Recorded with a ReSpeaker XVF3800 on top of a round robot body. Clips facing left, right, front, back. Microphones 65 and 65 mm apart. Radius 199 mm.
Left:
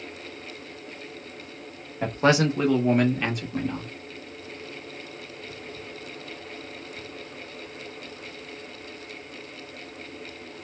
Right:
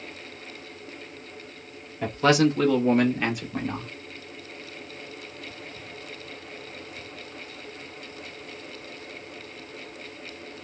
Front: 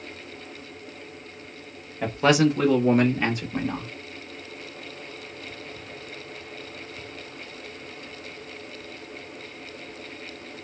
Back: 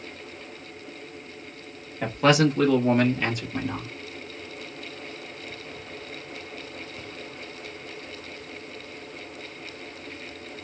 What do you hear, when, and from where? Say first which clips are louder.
2.0 s a man speaking: right 1 dB, even; 90° left, 1.6 m; by 3.9 s 35° right, 1.7 m